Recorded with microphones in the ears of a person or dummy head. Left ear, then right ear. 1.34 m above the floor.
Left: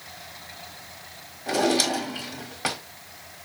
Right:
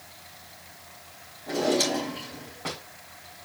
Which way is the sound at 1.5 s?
65° left (ahead or behind).